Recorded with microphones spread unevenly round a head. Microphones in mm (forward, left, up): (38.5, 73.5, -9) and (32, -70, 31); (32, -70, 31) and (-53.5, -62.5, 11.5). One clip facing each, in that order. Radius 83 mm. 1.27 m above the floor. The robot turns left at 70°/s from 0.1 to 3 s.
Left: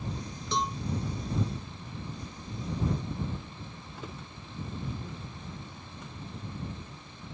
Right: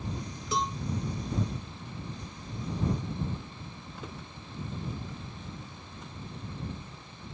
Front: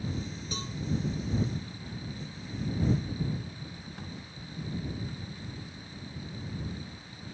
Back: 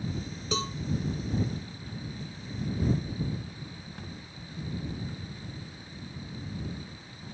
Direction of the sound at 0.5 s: 175° right.